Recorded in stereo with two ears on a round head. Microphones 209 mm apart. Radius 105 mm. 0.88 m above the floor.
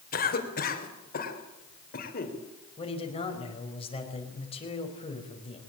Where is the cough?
40° left (ahead or behind), 4 m.